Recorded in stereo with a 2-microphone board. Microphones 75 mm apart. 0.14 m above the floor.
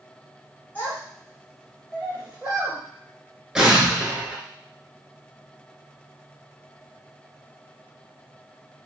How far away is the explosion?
About 0.7 m.